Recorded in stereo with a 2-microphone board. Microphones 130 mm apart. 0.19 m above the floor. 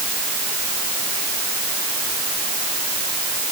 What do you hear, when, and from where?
Only background noise.